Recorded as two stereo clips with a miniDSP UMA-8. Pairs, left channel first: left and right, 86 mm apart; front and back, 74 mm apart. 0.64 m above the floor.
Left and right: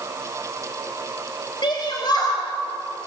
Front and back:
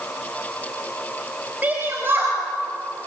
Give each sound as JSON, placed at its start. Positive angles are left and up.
{"t": 1.6, "sound": "a shout", "azimuth_deg": 115, "distance_m": 4.0}